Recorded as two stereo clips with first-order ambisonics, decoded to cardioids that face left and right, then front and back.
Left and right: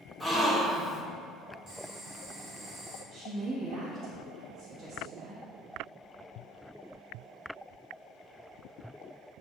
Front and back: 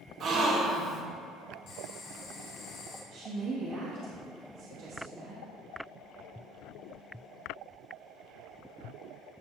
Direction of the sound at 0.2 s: 175° left.